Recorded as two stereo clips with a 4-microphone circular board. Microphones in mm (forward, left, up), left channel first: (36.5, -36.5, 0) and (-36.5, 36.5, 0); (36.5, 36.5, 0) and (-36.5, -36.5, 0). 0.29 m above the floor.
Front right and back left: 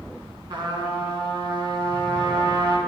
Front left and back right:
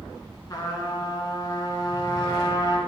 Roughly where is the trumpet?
Left.